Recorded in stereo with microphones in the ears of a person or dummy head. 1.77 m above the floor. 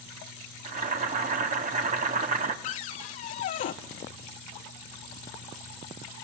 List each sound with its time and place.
0.7 s boiling: 45° right (ahead or behind), 2.5 m
2.6 s a cupboard door: 45° left (ahead or behind), 0.9 m